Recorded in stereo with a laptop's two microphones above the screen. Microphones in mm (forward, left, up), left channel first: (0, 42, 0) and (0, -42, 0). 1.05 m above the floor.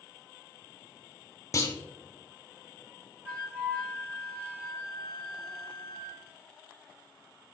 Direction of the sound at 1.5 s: 35° left (ahead or behind).